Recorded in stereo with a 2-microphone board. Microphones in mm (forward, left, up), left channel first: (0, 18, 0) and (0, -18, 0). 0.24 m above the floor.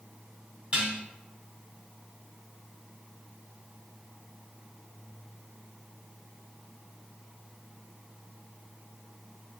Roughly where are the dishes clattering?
Right.